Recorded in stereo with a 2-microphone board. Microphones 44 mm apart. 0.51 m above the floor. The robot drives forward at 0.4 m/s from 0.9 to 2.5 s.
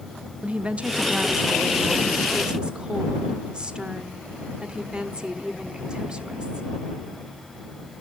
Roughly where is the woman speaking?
Right.